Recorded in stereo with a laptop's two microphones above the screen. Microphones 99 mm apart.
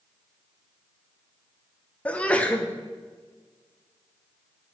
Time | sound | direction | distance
2.0 | a sneeze | 10° left (ahead or behind) | 0.6 m